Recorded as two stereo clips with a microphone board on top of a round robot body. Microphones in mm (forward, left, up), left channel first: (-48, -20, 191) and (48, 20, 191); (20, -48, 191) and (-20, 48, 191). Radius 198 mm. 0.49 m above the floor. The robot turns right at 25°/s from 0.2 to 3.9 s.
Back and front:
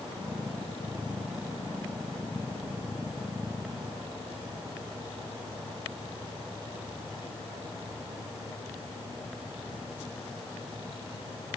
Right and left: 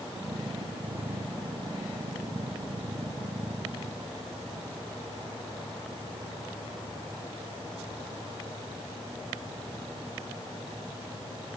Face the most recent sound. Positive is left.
No sound to turn to.